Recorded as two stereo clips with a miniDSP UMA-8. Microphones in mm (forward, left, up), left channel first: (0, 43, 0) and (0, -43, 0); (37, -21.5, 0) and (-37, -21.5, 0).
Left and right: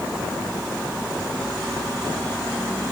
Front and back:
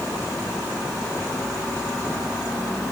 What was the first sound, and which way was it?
Only background noise.